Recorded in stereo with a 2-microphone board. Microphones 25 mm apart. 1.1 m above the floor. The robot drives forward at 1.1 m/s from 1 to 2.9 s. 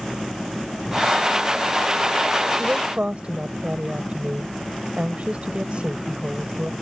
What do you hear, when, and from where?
2.6 s a woman speaking: 45° right (ahead or behind); by 6.7 s 50° right (ahead or behind)